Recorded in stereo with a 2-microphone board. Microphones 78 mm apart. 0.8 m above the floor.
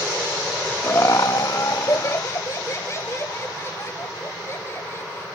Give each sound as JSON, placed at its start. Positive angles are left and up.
{"t": 0.8, "sound": "laughter", "side_deg": 30}